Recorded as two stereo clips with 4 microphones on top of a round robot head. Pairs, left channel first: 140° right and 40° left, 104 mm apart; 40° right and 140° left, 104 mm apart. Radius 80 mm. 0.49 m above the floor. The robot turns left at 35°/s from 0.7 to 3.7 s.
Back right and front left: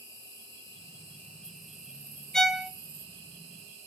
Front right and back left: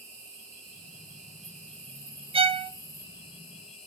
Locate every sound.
0.0 s an insect: 165° left, 8 m; by 3.9 s 60° left, 8 m
2.3 s a violin: 135° left, 0.8 m; by 2.7 s 120° left, 0.8 m